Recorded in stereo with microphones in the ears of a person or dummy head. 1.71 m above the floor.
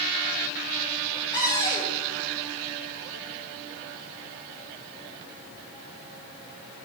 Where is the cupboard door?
20° left (ahead or behind), 3.5 m.